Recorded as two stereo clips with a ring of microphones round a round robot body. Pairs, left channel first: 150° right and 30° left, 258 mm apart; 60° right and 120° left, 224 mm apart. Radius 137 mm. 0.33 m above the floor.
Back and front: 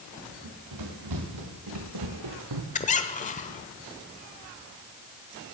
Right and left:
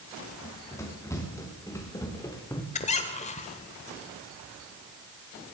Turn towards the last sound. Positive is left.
turn(degrees=-105)